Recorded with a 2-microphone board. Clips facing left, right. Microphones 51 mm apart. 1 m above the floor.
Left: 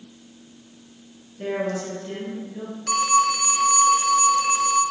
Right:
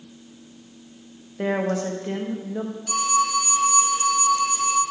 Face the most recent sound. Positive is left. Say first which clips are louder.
# left 3 dB
turn(degrees=70)  # may be behind; listen again after turning